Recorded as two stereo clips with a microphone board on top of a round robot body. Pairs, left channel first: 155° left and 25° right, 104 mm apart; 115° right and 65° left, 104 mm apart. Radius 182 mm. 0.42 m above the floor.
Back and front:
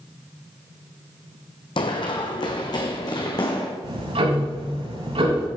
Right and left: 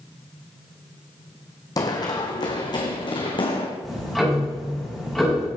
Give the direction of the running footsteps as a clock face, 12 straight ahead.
6 o'clock.